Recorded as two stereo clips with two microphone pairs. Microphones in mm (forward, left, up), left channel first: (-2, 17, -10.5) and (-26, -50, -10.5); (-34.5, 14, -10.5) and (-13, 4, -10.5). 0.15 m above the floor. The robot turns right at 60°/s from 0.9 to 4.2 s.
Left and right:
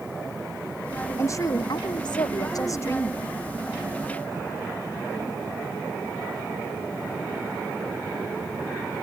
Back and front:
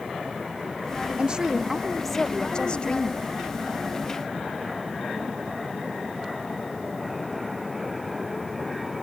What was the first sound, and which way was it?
A woman speaking, 15° left.